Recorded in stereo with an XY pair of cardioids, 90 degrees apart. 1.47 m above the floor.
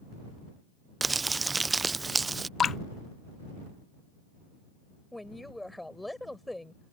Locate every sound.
1.0 s crumpling: 25° right
2.6 s dripping: 50° left
5.1 s a woman speaking: 10° left